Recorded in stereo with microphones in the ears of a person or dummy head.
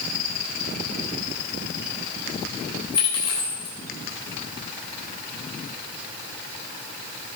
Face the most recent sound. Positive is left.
turn(degrees=30)  # may be behind; listen again after turning